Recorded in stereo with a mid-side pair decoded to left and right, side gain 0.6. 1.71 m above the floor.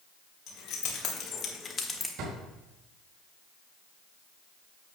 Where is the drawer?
65° right, 4 m.